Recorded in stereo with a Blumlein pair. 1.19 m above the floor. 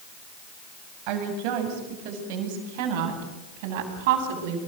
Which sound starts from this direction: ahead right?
A woman speaking, at 1.1 s.